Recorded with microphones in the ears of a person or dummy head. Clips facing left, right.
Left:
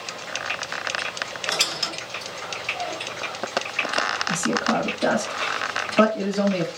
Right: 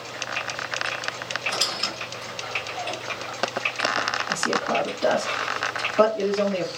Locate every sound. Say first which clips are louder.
1.5 s a squeak: left 1 dB; 80° left, 2.0 m
4.3 s a man speaking: left 2 dB; 55° left (ahead or behind), 1.6 m